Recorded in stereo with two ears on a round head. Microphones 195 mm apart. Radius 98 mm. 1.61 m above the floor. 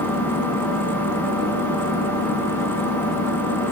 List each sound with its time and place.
0.0 s an engine running: 10° left (ahead or behind), 5 m